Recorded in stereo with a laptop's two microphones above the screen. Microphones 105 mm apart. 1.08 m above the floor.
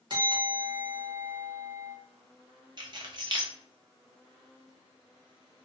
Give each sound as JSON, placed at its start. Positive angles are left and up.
{"t": 0.1, "sound": "a bell", "side_deg": -45, "distance_m": 1.2}
{"t": 2.8, "sound": "keys jangling", "side_deg": -45, "distance_m": 0.7}